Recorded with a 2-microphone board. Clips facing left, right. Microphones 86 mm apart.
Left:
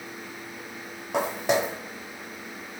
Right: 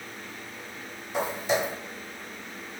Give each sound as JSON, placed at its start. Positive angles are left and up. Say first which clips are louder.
{"t": 1.1, "sound": "footsteps", "louder": "left 2 dB", "side_deg": 70, "distance_m": 0.7}